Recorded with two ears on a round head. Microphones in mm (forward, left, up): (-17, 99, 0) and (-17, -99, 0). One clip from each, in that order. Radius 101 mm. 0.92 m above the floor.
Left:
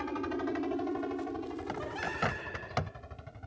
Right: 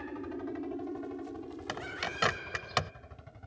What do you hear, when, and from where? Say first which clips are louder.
0.0 s a helicopter: left 5 dB; 55° left (ahead or behind); by 3.5 s 5° left (ahead or behind)
1.7 s a bird: right 1 dB; 85° right